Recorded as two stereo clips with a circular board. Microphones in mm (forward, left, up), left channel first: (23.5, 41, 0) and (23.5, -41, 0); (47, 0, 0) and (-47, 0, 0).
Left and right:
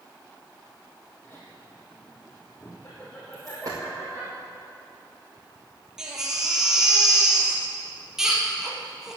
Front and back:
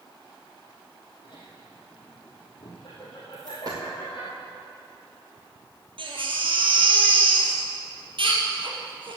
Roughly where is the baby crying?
Behind.